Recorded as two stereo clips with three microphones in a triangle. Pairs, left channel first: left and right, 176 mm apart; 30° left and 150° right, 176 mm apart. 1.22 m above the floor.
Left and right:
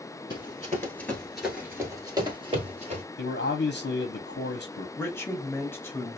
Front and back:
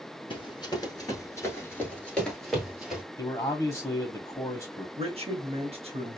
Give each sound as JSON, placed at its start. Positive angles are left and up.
{"t": 0.3, "sound": "running footsteps", "azimuth_deg": 60, "distance_m": 1.3}
{"t": 3.2, "sound": "a man speaking", "azimuth_deg": 100, "distance_m": 0.6}
{"t": 5.0, "sound": "a man speaking", "azimuth_deg": 165, "distance_m": 0.9}